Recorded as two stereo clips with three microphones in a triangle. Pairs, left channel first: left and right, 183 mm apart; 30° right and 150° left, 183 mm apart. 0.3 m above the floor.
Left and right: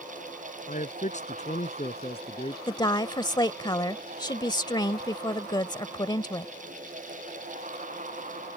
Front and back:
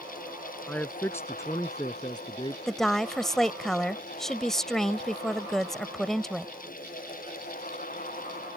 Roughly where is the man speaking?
Ahead left.